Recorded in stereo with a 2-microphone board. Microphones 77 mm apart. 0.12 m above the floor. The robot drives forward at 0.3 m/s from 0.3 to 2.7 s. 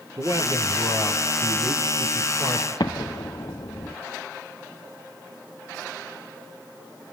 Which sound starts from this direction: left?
An explosion, at 2.8 s.